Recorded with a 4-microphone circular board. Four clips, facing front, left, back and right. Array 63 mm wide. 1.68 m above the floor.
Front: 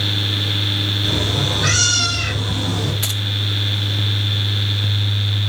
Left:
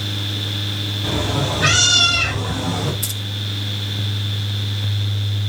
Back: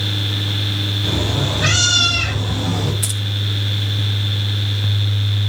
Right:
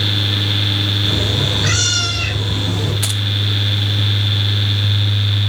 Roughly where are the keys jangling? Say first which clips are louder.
Right 7 dB, front 1 dB; ahead right.